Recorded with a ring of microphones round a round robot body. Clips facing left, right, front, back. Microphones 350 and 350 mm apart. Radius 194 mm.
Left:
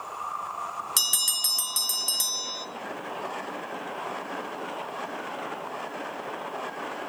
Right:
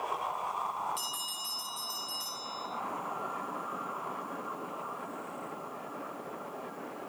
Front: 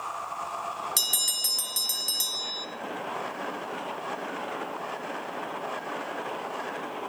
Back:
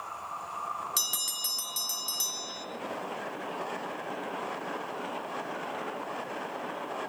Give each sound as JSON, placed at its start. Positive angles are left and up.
{"t": 1.0, "sound": "a bell", "azimuth_deg": 85, "distance_m": 1.2}